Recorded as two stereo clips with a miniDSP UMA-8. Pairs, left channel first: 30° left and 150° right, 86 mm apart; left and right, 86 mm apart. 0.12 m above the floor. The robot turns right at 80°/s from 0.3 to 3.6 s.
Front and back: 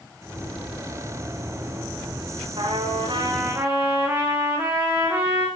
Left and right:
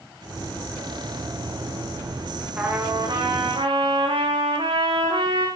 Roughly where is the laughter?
I don't hear laughter.